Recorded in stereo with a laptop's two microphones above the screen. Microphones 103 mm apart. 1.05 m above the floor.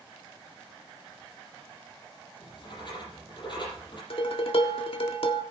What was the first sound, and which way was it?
Writing, 50° left (ahead or behind).